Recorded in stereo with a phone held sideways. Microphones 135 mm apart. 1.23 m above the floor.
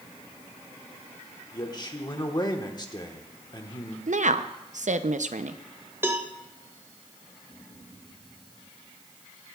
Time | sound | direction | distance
1.5 | a man speaking | 30° left (ahead or behind) | 1.2 m
4.1 | a woman speaking | 65° right (ahead or behind) | 0.6 m
6.0 | a cowbell | 20° right (ahead or behind) | 0.7 m